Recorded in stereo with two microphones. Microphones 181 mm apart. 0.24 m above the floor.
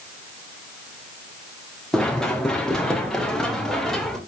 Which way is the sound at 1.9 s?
5° left (ahead or behind).